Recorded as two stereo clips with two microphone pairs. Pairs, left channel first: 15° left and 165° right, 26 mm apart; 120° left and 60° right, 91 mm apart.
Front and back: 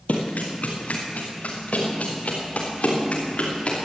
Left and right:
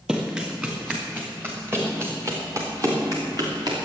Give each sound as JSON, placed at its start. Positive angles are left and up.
{"t": 0.1, "sound": "running footsteps", "azimuth_deg": 20, "distance_m": 4.0}